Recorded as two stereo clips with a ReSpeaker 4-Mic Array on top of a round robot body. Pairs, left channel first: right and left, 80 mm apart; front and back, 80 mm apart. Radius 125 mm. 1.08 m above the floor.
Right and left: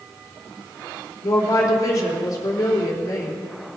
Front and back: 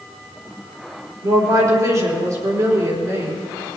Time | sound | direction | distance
1.2 | a woman speaking | 135° right | 4 m